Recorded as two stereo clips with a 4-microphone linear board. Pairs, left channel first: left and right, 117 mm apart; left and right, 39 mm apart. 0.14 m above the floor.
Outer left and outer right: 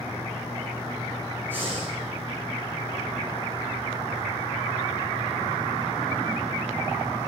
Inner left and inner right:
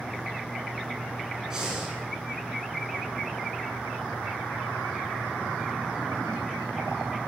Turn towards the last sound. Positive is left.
turn(degrees=-15)  # may be behind; listen again after turning